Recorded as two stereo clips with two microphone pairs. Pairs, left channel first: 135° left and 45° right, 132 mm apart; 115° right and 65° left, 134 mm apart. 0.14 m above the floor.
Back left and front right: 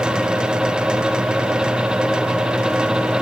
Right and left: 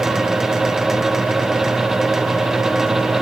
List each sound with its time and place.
Only background noise.